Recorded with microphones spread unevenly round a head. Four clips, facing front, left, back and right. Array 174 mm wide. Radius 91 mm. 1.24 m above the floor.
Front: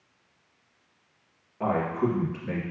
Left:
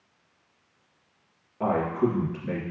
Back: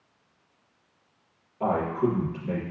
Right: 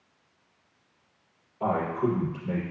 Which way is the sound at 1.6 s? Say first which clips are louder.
Left 2 dB, back 1 dB; 60° left.